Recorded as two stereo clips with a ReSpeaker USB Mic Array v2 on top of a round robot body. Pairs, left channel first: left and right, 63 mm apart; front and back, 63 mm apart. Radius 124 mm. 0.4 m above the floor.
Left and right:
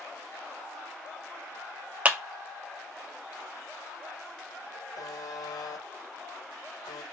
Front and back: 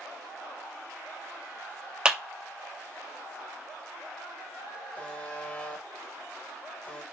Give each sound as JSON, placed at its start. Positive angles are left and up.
{"t": 2.0, "sound": "a clap", "azimuth_deg": -125, "distance_m": 0.6}
{"t": 5.0, "sound": "a buzzer", "azimuth_deg": 65, "distance_m": 0.6}